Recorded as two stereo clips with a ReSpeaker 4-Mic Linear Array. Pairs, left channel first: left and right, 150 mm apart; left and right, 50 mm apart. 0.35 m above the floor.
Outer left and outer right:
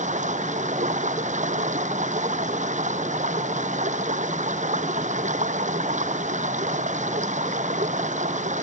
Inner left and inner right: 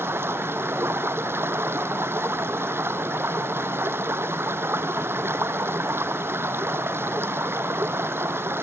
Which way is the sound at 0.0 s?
55° right (ahead or behind).